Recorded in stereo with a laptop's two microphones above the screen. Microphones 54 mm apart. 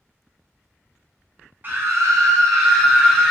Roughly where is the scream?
Right.